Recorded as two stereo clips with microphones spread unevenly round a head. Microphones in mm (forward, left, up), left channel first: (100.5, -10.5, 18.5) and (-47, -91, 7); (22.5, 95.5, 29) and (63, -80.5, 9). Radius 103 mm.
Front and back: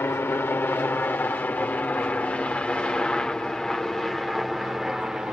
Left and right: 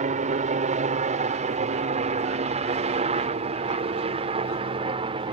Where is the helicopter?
45° right; by 5.3 s 70° right.